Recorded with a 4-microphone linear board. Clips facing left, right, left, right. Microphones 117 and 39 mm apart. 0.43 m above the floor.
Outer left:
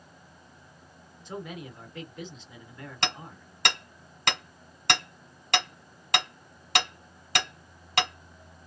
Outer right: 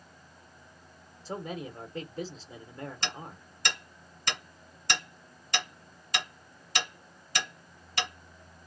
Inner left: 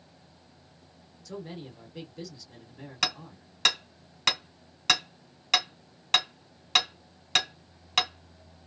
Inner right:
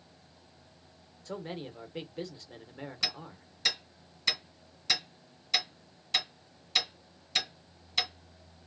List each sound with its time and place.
1.2 s a man speaking: 35° right (ahead or behind), 1.0 m
3.0 s hammering: 70° left (ahead or behind), 1.6 m